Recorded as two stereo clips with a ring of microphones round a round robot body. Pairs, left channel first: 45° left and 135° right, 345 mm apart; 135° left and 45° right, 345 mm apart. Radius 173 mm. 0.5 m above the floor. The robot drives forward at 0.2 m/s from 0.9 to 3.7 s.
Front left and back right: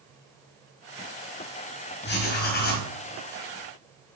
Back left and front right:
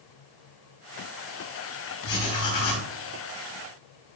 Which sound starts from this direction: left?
Writing, at 2.0 s.